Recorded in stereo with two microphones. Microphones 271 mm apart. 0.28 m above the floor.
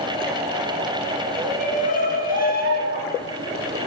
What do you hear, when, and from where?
1.4 s a shout: 25° left (ahead or behind), 4 m; by 3.2 s 40° left (ahead or behind), 3 m